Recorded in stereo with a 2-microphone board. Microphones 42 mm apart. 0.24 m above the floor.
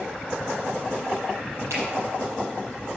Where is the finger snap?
80° right, 6 m.